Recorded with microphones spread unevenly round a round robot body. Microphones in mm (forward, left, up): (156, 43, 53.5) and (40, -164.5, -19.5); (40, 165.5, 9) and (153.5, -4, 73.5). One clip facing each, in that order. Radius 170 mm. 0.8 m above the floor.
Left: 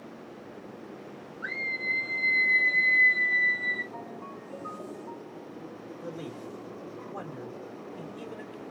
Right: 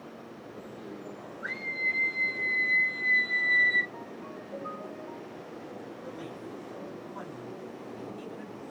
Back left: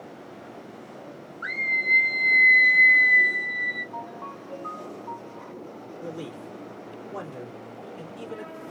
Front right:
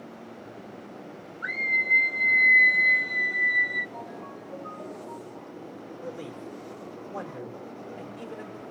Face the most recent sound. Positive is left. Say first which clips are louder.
# left 5 dB, back left 2 dB
turn(degrees=80)